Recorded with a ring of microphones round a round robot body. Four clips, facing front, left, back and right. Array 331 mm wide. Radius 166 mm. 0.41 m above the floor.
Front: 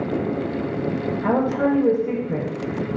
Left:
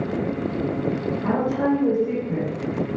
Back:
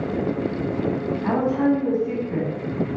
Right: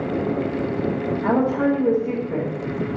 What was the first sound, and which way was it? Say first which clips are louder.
A woman speaking: right 3 dB, even; 15° right.